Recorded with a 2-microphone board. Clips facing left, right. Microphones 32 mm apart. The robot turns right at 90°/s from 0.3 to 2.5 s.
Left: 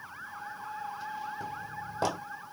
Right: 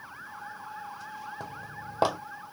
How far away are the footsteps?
About 1.7 m.